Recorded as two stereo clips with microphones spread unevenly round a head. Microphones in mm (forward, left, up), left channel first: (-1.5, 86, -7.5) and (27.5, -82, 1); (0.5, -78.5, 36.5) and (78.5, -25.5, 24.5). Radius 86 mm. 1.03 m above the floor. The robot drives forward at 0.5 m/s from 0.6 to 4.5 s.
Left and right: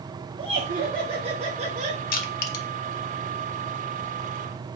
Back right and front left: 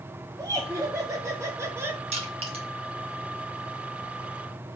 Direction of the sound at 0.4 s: 20° right.